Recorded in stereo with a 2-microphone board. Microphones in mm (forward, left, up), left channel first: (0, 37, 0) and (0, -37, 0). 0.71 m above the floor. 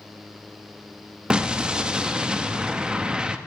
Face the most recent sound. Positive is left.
turn(degrees=-10)  # may be behind; listen again after turning